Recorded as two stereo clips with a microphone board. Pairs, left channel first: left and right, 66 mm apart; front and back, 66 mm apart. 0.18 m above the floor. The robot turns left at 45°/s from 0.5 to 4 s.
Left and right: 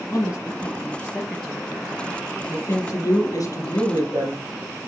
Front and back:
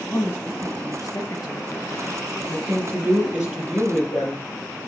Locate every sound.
0.1 s a woman speaking: 55° left, 3.5 m; by 2.2 s 20° right, 3.5 m
2.5 s a woman speaking: 145° left, 3.5 m; by 4.4 s 75° left, 3.5 m